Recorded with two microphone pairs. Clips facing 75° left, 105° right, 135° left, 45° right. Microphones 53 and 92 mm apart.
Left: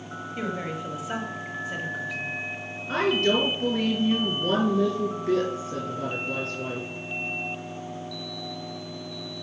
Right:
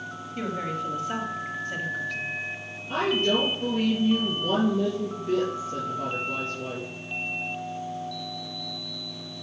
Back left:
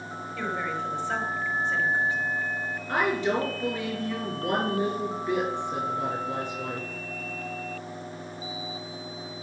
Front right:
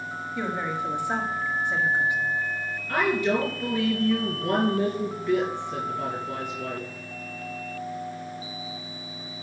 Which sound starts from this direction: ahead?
A woman speaking, at 0.3 s.